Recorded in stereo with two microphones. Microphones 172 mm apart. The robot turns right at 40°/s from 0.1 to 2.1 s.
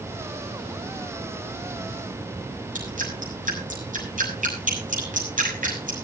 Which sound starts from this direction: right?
Dripping, at 2.8 s.